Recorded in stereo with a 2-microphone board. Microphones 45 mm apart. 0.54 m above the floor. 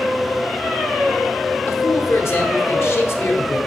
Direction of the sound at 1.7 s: 55° left (ahead or behind).